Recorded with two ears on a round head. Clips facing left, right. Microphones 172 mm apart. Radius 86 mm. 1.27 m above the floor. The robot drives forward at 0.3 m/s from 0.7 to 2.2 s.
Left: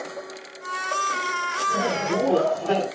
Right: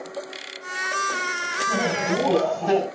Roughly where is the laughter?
Right.